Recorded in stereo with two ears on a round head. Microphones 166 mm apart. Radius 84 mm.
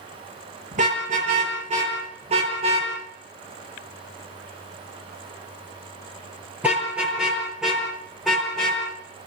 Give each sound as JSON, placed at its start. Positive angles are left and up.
{"t": 0.7, "sound": "a car horn", "side_deg": -45, "distance_m": 8.5}